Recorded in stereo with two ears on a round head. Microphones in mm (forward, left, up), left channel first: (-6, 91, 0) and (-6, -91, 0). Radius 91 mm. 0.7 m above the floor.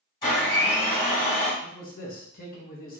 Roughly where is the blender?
Left.